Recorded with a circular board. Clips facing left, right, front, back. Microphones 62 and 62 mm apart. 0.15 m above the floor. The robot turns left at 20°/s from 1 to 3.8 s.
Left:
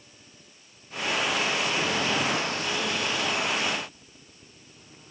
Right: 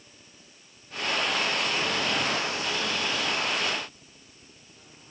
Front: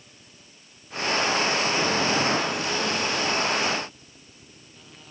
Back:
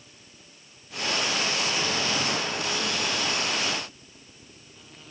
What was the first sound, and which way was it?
Only background noise.